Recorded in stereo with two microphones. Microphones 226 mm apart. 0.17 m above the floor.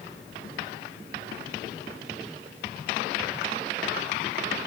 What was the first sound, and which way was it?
Only background noise.